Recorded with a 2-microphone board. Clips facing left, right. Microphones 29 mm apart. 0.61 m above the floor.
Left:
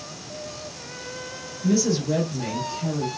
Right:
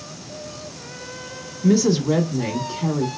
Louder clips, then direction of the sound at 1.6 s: Right 5 dB; 45° right (ahead or behind).